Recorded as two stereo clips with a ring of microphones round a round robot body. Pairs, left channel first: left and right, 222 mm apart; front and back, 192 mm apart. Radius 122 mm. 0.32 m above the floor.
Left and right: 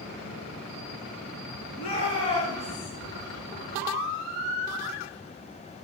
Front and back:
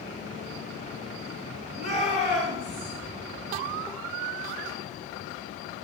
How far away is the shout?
About 4.5 m.